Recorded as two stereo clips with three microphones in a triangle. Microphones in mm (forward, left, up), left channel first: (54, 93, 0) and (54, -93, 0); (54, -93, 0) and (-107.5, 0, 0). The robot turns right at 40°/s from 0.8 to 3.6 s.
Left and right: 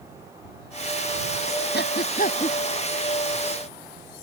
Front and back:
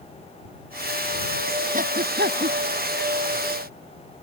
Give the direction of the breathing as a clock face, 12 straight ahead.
8 o'clock.